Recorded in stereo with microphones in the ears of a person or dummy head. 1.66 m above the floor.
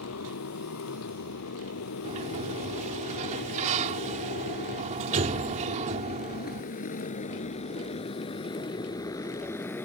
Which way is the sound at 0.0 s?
80° left.